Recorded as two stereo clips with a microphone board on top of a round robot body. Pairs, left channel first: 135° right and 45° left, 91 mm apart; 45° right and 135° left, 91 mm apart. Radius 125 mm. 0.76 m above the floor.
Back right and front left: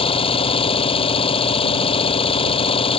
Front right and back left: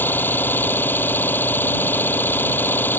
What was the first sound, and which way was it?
An engine running, 115° right.